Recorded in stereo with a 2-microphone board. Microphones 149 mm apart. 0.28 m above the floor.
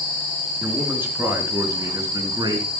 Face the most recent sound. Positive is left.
turn(degrees=-30)  # may be behind; listen again after turning